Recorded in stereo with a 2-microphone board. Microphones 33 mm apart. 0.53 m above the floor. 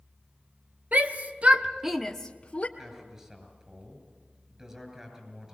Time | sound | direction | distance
0.9 | a shout | 55° right (ahead or behind) | 1.9 m
2.8 | a man speaking | 20° right (ahead or behind) | 7 m